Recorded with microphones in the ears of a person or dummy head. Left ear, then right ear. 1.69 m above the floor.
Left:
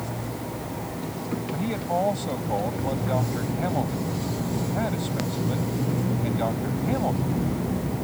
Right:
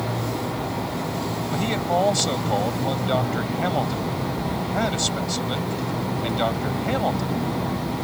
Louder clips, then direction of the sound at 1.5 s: Right 4 dB; 65° right (ahead or behind).